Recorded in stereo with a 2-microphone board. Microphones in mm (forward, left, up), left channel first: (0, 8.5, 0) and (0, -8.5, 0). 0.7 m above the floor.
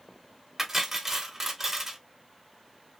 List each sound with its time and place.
0.6 s cutlery clinking: 15° right (ahead or behind), 1.1 m